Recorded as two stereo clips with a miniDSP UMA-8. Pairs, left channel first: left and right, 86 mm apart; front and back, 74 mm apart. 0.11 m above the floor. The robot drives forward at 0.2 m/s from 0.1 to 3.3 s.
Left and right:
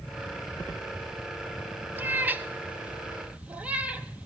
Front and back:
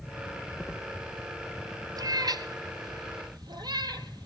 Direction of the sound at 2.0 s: 155° right.